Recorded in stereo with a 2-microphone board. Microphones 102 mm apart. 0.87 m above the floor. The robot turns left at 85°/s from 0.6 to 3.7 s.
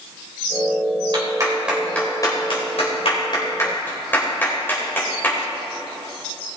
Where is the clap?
55° right (ahead or behind), 3.5 m; by 5.4 s 20° left (ahead or behind), 3.5 m.